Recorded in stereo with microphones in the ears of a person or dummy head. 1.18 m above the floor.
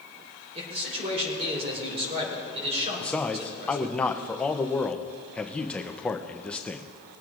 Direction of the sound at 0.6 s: 30° right (ahead or behind).